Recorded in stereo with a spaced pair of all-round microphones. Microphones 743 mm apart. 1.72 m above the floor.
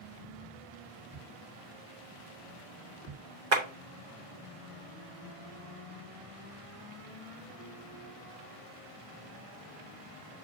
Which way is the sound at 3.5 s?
70° right (ahead or behind).